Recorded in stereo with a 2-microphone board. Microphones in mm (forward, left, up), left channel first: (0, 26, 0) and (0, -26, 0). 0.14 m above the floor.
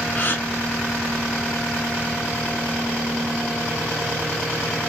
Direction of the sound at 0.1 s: 40° left (ahead or behind).